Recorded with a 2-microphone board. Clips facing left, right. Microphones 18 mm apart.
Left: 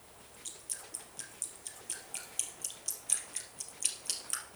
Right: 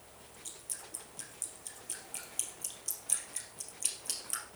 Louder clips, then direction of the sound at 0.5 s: Left 1 dB; 15° left (ahead or behind).